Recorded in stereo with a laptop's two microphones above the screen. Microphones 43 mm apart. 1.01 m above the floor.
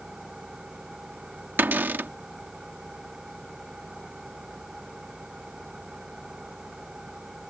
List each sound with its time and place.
0.0 s an engine running: 15° right (ahead or behind)
1.6 s a cupboard door: 50° right (ahead or behind)